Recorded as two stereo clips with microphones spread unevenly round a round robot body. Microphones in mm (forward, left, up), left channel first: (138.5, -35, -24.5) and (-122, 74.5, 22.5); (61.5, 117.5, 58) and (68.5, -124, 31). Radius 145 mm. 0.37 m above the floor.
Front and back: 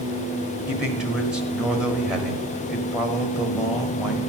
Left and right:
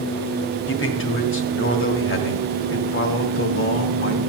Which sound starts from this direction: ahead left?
A man speaking, at 0.7 s.